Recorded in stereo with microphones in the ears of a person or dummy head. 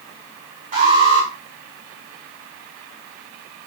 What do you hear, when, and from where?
0.7 s an alarm: 30° right (ahead or behind), 6 m